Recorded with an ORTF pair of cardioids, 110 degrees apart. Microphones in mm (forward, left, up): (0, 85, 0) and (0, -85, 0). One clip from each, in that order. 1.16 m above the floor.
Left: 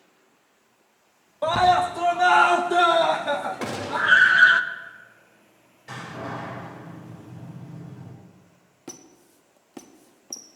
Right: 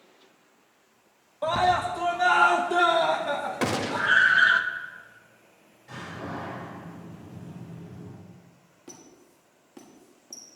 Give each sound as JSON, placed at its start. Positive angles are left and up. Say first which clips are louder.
{"t": 1.4, "sound": "a scream", "louder": "left 4 dB", "azimuth_deg": 20, "distance_m": 0.8}
{"t": 3.6, "sound": "a gunshot", "louder": "even", "azimuth_deg": -30, "distance_m": 0.9}
{"t": 5.9, "sound": "a door slam", "louder": "left 3 dB", "azimuth_deg": 55, "distance_m": 4.5}
{"t": 8.9, "sound": "a squeak", "louder": "left 5 dB", "azimuth_deg": 40, "distance_m": 1.1}